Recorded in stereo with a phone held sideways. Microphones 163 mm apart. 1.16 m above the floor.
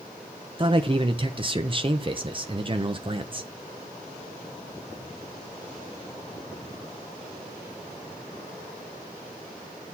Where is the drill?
I don't hear a drill.